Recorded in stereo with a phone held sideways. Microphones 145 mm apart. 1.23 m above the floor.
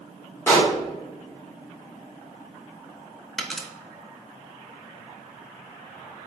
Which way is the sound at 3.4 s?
Centre (ahead or behind).